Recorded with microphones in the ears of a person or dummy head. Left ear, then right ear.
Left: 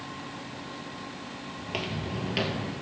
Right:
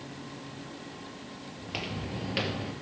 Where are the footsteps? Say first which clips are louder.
Left 2 dB; 5° right (ahead or behind), 2 m; by 2.7 s 10° right (ahead or behind), 1.7 m.